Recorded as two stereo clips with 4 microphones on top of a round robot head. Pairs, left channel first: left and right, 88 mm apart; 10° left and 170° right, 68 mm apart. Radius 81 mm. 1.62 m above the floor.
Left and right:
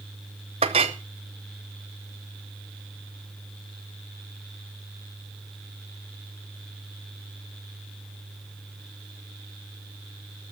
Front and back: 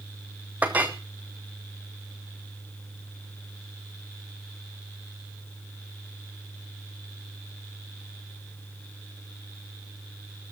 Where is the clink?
95° right, 0.8 m.